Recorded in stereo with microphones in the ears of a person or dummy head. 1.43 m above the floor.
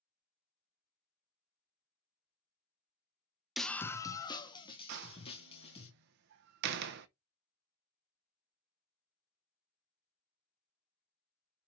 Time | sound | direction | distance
3.6 | a scream | centre (ahead or behind) | 0.6 m
4.9 | a door slam | 60° right (ahead or behind) | 0.7 m